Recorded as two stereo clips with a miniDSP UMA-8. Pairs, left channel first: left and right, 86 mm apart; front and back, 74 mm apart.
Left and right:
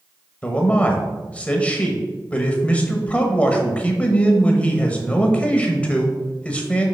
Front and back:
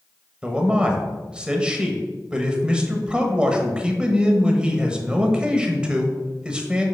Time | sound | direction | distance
0.4 | a man speaking | 135° left | 0.9 m